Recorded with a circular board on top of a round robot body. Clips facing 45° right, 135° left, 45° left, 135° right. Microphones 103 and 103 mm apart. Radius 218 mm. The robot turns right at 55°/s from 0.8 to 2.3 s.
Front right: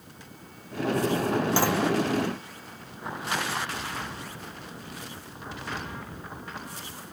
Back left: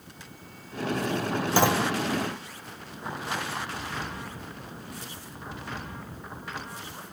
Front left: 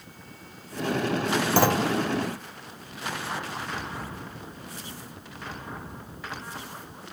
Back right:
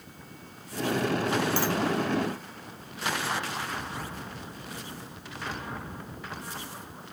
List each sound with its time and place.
1.6 s a clunk: 65° left; by 1.9 s 85° left